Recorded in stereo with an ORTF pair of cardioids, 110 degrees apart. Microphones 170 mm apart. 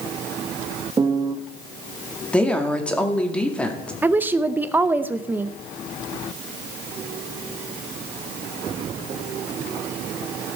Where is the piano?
25° right, 0.8 m.